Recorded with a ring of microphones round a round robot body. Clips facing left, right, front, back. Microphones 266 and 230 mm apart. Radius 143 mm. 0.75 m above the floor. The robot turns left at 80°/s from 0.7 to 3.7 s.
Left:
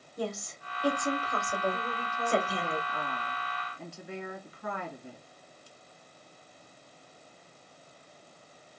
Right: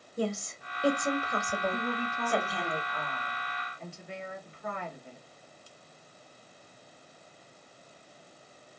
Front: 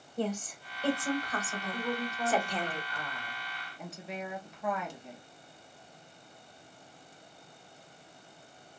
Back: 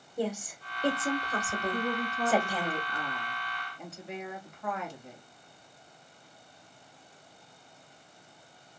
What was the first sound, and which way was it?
A woman speaking, 110° right.